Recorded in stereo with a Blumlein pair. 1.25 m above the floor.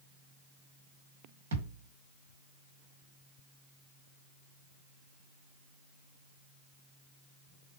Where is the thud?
60° right, 1.9 m.